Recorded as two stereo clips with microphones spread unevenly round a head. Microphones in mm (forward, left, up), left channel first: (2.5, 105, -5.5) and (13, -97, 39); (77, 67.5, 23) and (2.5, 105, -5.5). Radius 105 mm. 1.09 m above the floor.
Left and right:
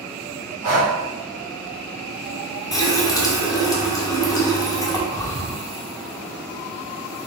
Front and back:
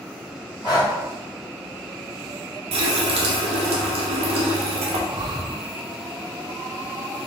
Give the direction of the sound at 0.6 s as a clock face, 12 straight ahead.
3 o'clock.